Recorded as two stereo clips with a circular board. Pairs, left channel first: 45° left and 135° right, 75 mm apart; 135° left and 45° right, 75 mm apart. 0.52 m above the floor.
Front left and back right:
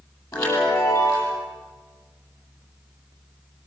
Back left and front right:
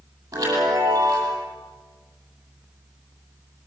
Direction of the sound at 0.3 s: Straight ahead.